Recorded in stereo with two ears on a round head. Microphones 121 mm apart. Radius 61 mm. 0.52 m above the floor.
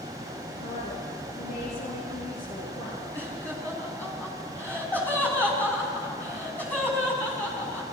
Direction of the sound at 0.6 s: 60° left (ahead or behind).